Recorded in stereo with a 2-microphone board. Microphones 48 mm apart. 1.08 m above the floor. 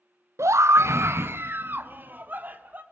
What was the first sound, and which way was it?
A scream, 70° right (ahead or behind).